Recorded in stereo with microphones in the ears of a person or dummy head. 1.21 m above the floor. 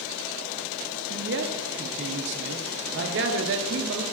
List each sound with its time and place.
1.1 s a man speaking: 60° right (ahead or behind), 0.6 m